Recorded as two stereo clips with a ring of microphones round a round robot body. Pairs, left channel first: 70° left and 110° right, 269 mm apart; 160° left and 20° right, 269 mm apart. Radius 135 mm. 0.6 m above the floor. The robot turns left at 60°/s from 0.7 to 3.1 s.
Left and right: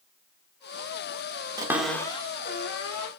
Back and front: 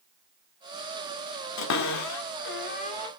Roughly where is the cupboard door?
Behind.